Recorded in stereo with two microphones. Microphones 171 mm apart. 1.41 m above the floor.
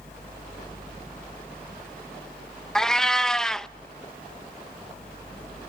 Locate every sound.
2.8 s a cat meowing: 5° left (ahead or behind), 0.6 m